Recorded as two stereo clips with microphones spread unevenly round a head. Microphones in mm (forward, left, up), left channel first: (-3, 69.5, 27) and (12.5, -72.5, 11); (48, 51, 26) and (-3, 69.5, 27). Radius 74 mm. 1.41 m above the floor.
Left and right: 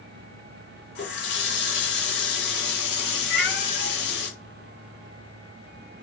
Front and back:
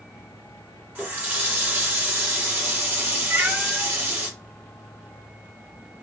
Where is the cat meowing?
110° left, 3 m.